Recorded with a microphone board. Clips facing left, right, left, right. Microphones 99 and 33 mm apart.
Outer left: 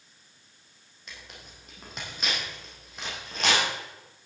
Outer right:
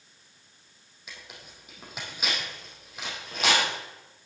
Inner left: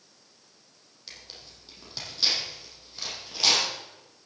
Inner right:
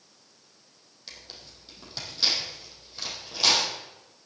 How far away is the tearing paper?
About 4 m.